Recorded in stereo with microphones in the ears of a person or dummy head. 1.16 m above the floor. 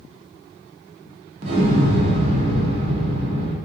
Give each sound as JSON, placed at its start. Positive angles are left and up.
{"t": 1.4, "sound": "an explosion", "side_deg": -30, "distance_m": 0.7}